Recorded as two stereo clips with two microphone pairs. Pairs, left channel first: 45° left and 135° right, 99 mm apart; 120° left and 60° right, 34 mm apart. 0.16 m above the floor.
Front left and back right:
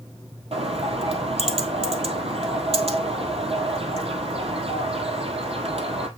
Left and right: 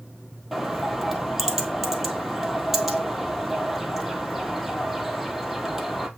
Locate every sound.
0.5 s a bird: 145° right, 1.3 m